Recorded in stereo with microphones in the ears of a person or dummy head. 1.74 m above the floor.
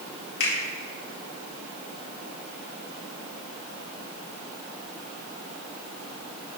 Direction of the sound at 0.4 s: 75° left (ahead or behind).